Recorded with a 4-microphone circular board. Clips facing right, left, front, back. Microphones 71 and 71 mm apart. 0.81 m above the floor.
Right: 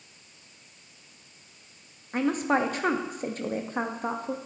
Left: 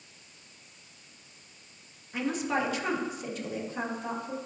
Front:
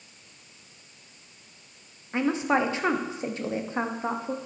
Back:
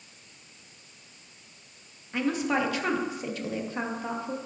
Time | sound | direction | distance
2.1 | a woman speaking | 60° right | 0.9 m